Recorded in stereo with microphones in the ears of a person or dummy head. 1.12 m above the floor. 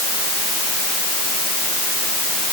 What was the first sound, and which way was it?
Only background noise.